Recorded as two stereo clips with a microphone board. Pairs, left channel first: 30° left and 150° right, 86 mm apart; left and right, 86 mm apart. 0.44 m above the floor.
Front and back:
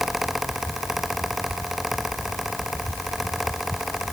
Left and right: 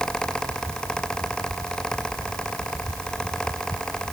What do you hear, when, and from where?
Only background noise.